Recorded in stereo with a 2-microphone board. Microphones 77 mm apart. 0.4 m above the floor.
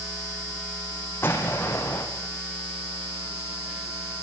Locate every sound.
1.2 s an explosion: 30° left (ahead or behind), 4 m